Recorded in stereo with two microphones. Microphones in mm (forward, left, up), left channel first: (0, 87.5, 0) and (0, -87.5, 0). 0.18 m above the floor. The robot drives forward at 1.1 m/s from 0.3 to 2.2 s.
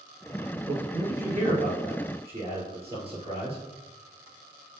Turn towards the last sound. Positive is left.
turn(degrees=-35)  # may be behind; listen again after turning